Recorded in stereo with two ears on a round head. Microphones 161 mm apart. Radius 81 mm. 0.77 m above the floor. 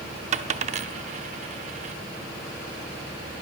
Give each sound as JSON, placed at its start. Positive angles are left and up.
{"t": 0.3, "sound": "a dropped coin", "side_deg": -40, "distance_m": 0.7}